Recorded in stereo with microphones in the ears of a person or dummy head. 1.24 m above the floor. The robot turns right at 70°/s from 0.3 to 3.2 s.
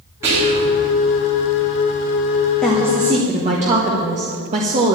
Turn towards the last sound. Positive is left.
turn(degrees=-145)